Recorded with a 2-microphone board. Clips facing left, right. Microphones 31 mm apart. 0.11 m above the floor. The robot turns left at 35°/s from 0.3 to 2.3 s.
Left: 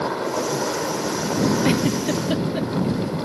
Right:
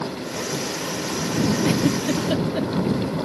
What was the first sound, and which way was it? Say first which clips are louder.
A helicopter: left 5 dB; 70° left.